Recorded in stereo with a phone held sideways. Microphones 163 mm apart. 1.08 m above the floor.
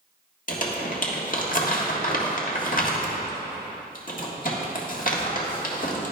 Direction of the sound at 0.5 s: 55° left (ahead or behind).